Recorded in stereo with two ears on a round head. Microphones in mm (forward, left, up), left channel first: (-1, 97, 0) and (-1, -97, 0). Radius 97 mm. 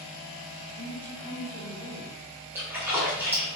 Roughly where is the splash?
Centre.